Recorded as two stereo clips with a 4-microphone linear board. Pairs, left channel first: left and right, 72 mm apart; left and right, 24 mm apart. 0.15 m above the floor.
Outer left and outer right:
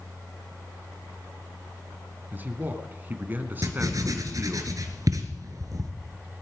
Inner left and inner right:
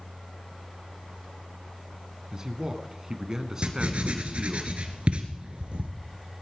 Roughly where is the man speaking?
Right.